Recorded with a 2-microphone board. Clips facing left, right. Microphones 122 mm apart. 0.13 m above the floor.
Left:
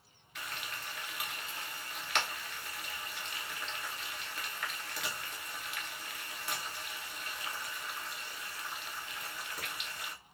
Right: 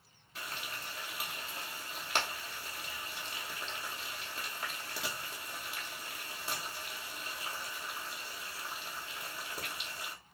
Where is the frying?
30° right (ahead or behind), 0.7 m.